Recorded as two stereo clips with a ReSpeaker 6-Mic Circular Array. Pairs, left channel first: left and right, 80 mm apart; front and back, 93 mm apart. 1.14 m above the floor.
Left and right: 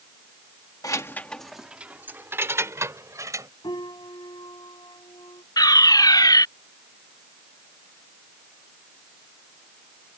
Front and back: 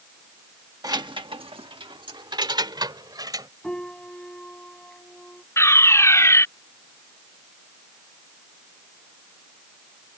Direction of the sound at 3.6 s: 80° left.